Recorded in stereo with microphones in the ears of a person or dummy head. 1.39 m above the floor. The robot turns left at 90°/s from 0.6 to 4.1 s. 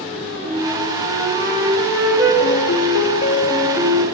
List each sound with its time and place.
0.4 s a flute: 35° right, 3 m; by 2.3 s 170° left, 3 m
2.4 s a piano: 115° left, 0.6 m; by 4.0 s 35° right, 0.6 m